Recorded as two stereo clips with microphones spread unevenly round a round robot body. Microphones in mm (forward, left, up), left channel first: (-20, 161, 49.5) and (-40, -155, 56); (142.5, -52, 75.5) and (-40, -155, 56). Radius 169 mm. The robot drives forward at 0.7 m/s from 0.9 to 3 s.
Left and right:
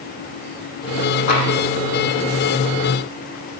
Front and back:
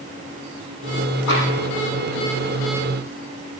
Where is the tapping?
60° left, 9.5 m; by 1.5 s 65° left, 9.5 m.